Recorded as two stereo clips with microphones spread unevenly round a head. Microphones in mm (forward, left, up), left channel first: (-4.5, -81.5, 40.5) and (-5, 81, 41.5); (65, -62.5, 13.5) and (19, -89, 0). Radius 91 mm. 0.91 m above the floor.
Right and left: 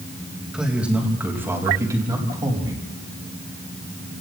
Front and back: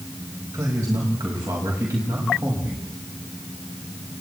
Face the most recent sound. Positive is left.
turn(degrees=155)